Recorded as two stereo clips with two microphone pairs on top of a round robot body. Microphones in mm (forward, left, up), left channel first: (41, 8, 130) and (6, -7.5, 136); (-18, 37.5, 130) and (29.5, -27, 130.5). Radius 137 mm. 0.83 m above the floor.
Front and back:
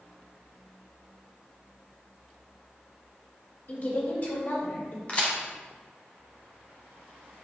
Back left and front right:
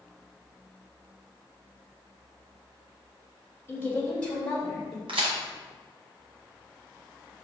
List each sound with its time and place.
3.7 s a woman speaking: 65° left, 3.5 m; by 5.0 s 40° left, 4.5 m
5.1 s a crack: 40° right, 1.4 m